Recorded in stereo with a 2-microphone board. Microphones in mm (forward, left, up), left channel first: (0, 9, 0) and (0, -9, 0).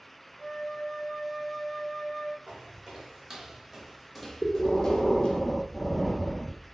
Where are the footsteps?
50° right (ahead or behind), 1.1 m; by 5.4 s 60° left (ahead or behind), 0.8 m.